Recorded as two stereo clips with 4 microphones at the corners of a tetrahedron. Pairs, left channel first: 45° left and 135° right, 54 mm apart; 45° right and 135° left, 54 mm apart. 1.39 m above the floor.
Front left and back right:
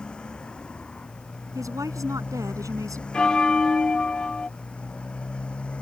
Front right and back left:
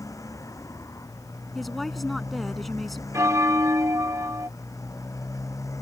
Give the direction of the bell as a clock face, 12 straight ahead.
8 o'clock.